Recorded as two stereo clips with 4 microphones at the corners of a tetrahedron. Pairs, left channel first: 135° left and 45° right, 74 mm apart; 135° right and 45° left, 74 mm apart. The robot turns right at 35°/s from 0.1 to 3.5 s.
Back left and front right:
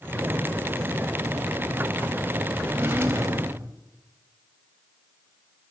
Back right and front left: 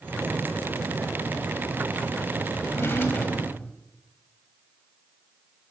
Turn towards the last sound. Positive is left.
turn(degrees=-75)